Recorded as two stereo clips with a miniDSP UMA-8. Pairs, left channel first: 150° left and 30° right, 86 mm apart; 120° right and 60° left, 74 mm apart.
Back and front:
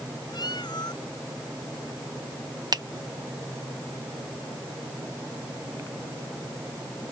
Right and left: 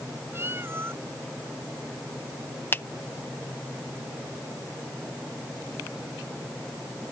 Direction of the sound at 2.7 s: 65° right.